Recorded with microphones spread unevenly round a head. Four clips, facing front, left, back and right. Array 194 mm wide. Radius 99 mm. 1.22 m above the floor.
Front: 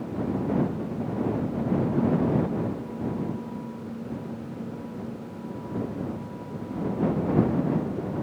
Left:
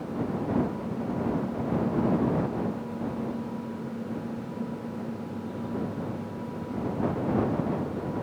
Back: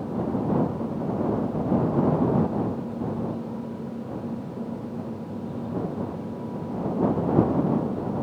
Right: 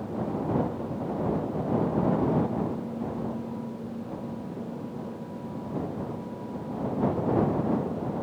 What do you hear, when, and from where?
Only background noise.